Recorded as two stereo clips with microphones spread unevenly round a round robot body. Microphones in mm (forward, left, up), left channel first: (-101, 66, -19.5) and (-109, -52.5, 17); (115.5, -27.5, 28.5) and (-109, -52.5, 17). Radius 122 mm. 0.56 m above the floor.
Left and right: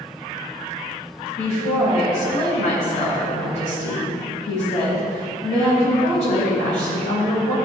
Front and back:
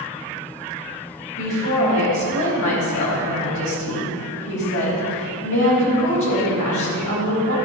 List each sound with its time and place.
1.4 s a woman speaking: 45° left, 3.5 m